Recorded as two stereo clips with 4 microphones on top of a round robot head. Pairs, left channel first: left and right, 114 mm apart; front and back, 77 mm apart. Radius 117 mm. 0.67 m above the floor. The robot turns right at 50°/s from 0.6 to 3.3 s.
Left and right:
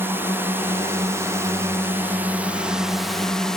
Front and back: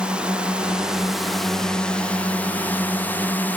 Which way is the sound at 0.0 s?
125° right.